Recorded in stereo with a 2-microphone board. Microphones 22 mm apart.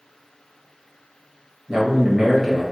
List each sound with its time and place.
1.7 s a man speaking: 55° right (ahead or behind), 1.6 m